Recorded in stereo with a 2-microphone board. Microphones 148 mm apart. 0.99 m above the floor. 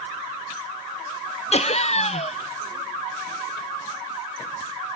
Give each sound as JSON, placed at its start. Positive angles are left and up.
{"t": 1.5, "sound": "laughter", "side_deg": 50}